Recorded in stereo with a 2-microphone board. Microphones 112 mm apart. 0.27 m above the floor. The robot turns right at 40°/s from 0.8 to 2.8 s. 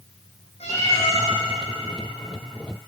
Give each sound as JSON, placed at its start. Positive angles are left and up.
{"t": 0.6, "sound": "a cat meowing", "side_deg": 75, "distance_m": 7.0}